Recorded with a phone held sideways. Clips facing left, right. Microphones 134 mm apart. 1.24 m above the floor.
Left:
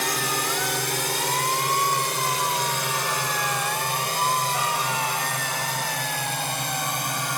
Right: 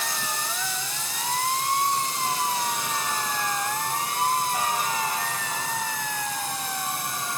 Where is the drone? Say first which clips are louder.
Left 5 dB; 75° left (ahead or behind); by 7.4 s 70° left (ahead or behind).